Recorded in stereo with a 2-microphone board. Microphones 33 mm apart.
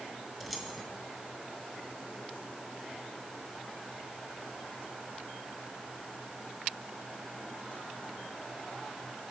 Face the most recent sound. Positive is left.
turn(degrees=0)  # may be behind; listen again after turning